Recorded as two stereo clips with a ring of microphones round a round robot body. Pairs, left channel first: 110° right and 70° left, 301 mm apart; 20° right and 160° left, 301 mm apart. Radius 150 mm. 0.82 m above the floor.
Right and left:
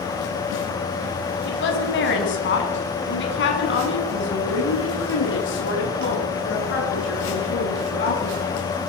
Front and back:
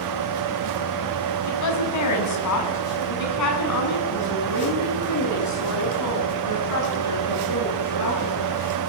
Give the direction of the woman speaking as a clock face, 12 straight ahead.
2 o'clock.